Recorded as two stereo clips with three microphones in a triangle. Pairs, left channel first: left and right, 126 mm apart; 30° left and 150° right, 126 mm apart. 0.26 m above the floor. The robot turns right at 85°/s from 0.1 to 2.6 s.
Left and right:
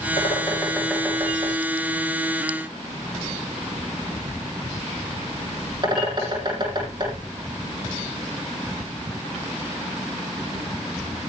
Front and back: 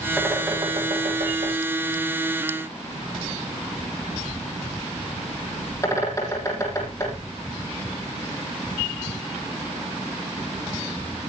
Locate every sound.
0.2 s a bird: 120° left, 9.5 m; by 7.3 s 35° right, 9.5 m